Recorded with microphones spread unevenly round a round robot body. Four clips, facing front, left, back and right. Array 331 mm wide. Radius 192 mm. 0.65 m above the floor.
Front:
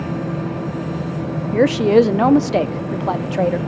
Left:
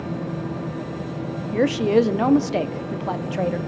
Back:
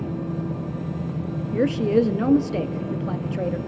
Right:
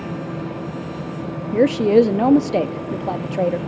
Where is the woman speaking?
50° right, 0.6 m.